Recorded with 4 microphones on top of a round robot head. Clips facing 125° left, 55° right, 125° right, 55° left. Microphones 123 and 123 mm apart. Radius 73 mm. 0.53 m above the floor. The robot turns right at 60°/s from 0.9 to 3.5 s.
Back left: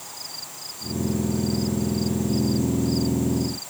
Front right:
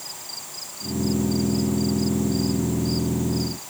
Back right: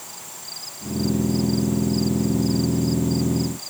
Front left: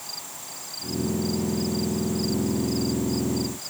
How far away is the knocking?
No knocking in this recording.